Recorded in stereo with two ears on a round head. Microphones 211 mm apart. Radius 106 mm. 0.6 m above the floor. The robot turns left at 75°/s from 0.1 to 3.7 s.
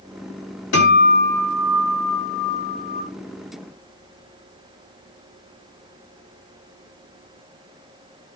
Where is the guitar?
120° left, 4 m; by 3.0 s 55° right, 4 m.